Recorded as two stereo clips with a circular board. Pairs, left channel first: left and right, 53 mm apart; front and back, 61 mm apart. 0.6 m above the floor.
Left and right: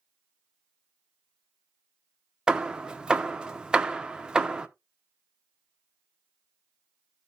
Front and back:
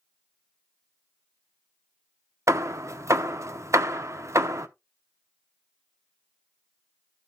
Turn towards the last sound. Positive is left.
turn(degrees=-160)